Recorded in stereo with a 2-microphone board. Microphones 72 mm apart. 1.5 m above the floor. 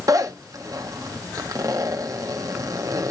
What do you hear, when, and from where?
0.1 s a zipper: 50° right (ahead or behind), 1.0 m